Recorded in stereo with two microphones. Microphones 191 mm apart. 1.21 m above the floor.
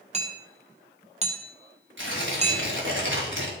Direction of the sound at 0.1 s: 35° right (ahead or behind).